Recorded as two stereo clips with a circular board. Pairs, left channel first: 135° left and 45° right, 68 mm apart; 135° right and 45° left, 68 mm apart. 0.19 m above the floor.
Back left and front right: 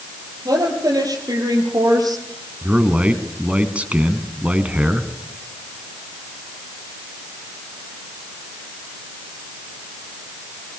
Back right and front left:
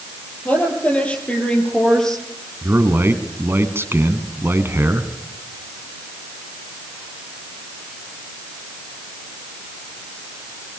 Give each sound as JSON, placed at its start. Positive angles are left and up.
{"t": 0.5, "sound": "a woman speaking", "azimuth_deg": -65, "distance_m": 6.0}
{"t": 2.6, "sound": "a man speaking", "azimuth_deg": 15, "distance_m": 1.9}